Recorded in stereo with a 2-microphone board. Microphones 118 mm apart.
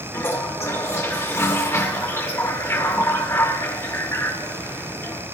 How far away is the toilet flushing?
About 1.4 m.